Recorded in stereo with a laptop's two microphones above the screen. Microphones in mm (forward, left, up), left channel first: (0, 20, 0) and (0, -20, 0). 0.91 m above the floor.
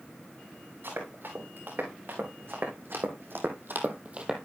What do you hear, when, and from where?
0.8 s running footsteps: 60° right (ahead or behind), 5.5 m; by 4.5 s 10° right (ahead or behind), 1.3 m